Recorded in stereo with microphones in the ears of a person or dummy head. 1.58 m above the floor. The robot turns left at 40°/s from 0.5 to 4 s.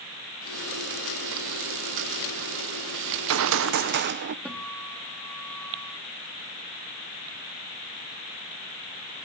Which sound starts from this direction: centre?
A guitar, at 4.5 s.